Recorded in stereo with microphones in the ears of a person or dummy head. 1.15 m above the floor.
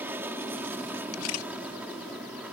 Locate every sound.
0.0 s an aircraft: 15° right (ahead or behind); by 2.5 s 10° right (ahead or behind)
1.1 s a camera shutter: 80° left